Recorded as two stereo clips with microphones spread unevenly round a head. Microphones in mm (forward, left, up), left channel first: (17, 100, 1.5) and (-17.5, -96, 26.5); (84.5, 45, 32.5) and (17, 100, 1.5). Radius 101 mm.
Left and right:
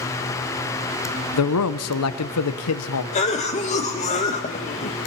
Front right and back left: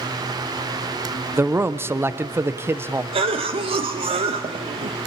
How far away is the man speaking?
About 0.8 m.